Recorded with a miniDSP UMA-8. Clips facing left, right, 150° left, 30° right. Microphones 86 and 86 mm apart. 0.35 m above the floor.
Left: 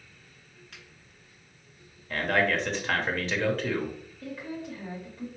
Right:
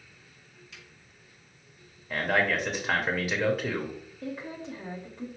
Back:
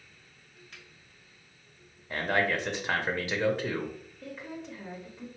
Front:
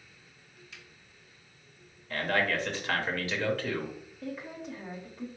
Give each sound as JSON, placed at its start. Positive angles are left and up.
{"t": 0.7, "sound": "a finger snap", "azimuth_deg": 115, "distance_m": 2.5}
{"t": 2.1, "sound": "a man speaking", "azimuth_deg": -160, "distance_m": 1.0}
{"t": 4.2, "sound": "a woman speaking", "azimuth_deg": -110, "distance_m": 0.8}